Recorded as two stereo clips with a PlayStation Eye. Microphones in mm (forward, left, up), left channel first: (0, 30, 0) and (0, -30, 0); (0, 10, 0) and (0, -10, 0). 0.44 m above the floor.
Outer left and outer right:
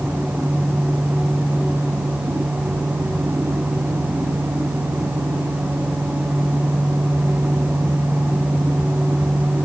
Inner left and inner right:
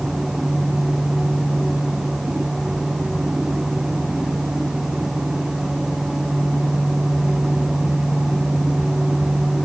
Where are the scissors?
I don't hear scissors.